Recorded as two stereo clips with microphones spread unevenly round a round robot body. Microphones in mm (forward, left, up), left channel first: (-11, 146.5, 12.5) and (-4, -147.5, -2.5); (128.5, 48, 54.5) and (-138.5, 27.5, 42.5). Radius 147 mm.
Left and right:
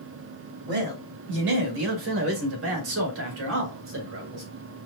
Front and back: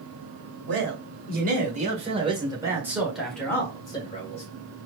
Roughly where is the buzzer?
No buzzer in this recording.